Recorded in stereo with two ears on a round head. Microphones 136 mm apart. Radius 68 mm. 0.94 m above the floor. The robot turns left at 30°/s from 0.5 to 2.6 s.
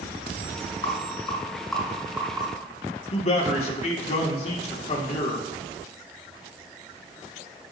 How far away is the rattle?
About 4 m.